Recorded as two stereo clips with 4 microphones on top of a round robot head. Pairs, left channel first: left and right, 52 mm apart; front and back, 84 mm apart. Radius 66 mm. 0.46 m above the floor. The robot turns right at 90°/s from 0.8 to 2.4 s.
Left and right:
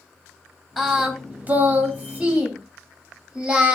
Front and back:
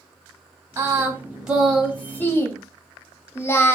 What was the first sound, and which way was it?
Singing, 170° right.